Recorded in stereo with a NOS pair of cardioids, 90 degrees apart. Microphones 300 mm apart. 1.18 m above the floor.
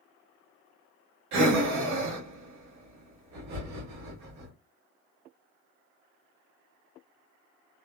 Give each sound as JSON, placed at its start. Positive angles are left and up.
{"t": 1.3, "sound": "breathing", "azimuth_deg": -65, "distance_m": 1.4}